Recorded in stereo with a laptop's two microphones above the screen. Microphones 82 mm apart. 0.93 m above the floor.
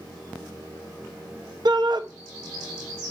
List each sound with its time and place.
1.6 s a shout: 60° right (ahead or behind), 0.8 m